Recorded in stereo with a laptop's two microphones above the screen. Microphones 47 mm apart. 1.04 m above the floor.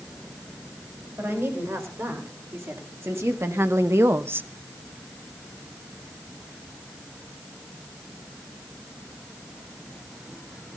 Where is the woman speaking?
65° right (ahead or behind), 4.5 m; by 4.5 s 40° right (ahead or behind), 0.7 m.